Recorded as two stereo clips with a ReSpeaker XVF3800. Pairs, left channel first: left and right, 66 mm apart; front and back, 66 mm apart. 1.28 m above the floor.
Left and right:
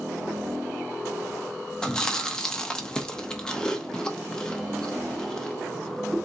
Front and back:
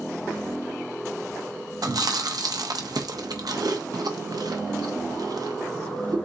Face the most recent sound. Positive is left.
turn(degrees=165)